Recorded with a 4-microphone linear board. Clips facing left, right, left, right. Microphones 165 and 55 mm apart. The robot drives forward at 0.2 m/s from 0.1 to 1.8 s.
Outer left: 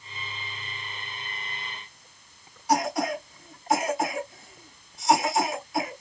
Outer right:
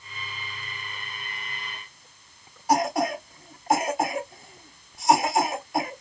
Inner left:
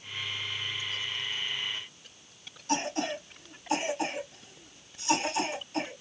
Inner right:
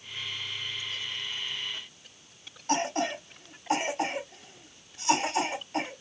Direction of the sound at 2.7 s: 55° right (ahead or behind).